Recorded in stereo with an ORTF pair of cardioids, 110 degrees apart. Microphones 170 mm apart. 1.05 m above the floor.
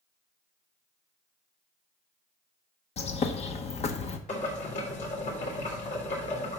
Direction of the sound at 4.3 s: 45° left.